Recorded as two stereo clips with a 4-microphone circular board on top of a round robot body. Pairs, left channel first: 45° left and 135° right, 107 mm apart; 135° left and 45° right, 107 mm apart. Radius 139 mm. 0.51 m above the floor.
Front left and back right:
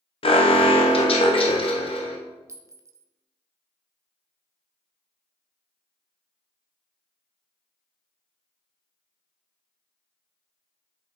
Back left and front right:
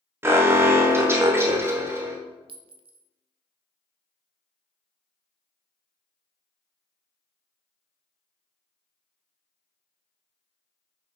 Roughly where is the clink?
Right.